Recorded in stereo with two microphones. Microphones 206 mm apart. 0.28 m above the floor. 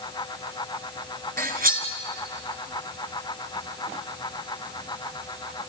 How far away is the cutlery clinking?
About 2 m.